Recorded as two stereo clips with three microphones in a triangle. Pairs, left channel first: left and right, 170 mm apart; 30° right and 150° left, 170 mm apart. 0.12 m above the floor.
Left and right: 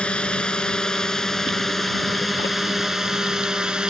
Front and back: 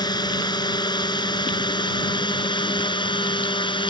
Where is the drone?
10° left; by 3.9 s 10° right.